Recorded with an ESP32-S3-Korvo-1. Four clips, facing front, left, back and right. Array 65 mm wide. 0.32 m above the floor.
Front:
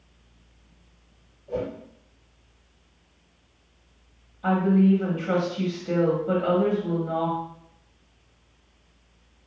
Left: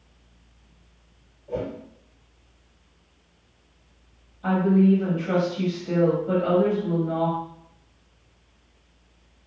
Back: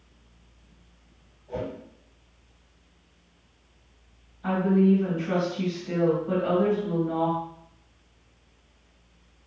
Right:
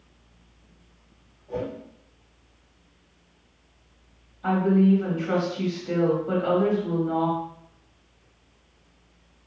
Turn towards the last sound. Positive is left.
turn(degrees=0)